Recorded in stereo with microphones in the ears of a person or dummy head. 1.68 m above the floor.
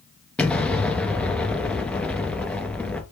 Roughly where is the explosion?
Centre.